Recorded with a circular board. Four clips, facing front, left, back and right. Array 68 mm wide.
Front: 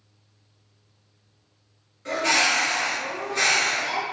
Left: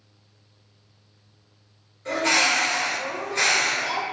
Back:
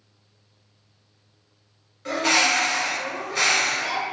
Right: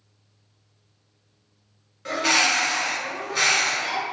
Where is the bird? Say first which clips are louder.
Even, back 1 dB; 125° right, 1.6 m.